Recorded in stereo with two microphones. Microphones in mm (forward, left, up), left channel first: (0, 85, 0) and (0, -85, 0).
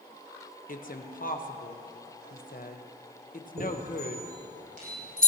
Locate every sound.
0.7 s a woman speaking: 55° left (ahead or behind), 1.3 m
3.6 s a chime: 60° right (ahead or behind), 7.5 m